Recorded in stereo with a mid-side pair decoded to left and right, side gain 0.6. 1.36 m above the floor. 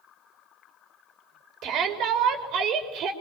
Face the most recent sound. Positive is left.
turn(degrees=-65)